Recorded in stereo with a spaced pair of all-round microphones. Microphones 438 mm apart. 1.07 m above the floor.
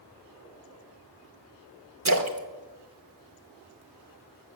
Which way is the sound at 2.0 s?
40° right (ahead or behind).